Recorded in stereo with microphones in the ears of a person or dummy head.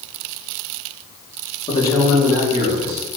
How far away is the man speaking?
About 1.3 m.